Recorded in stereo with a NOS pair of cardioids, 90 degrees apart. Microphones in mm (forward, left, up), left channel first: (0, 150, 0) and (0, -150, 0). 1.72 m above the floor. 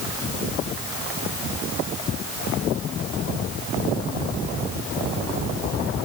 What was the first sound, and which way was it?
Only background noise.